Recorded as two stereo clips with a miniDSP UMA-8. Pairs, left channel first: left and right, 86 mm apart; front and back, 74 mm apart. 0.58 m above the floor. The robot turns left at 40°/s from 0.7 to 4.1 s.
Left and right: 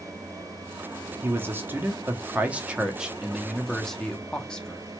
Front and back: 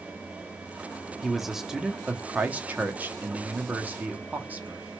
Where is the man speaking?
90° right, 0.6 m; by 4.8 s 155° left, 0.6 m.